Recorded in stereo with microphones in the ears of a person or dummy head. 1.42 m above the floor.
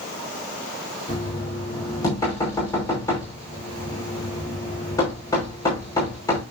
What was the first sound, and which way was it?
Knocking, 15° left (ahead or behind).